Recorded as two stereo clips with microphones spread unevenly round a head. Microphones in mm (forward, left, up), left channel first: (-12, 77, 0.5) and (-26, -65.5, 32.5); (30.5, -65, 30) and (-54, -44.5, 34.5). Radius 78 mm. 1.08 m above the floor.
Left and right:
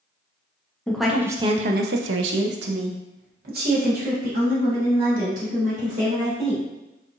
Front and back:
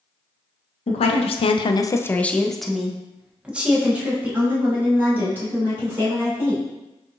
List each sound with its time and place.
0.9 s a woman speaking: straight ahead, 0.7 m; by 6.7 s 130° right, 3.5 m